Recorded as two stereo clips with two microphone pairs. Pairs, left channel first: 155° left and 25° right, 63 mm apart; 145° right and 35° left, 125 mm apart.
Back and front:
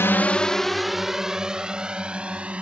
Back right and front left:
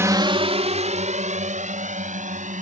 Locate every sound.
0.0 s a drone: 105° left; by 2.6 s 40° left